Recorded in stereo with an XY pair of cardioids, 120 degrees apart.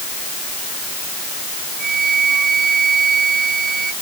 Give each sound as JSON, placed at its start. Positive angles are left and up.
{"t": 1.8, "sound": "a flute", "azimuth_deg": -35}